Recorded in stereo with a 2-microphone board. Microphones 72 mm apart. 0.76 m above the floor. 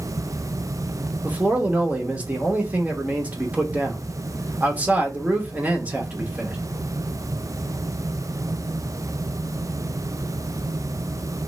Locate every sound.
1.2 s a man speaking: 20° right (ahead or behind), 0.8 m